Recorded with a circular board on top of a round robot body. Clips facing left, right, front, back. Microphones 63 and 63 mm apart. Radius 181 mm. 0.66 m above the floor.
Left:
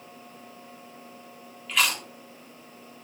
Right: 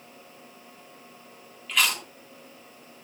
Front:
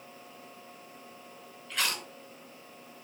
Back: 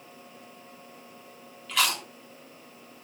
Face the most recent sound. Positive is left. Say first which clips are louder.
# even, back 6 dB
turn(degrees=180)